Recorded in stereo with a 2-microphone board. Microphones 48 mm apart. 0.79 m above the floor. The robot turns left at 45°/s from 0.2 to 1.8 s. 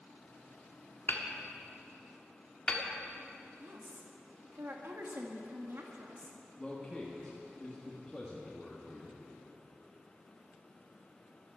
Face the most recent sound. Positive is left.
turn(degrees=10)  # may be behind; listen again after turning